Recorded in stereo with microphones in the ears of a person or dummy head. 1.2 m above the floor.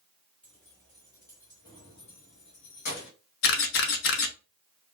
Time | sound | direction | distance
0.4 | keys jangling | centre (ahead or behind) | 1.9 m
3.4 | a camera shutter | 55° left (ahead or behind) | 0.7 m